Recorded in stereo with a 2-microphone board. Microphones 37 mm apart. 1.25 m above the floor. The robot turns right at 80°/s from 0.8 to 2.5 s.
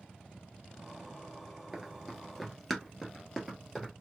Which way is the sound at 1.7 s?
15° right (ahead or behind).